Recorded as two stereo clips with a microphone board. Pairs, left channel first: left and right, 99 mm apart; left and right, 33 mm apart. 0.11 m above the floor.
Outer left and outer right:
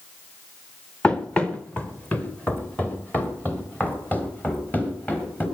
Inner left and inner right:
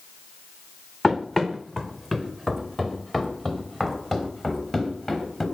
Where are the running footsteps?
10° left (ahead or behind), 1.4 m; by 5.5 s 15° left (ahead or behind), 5 m.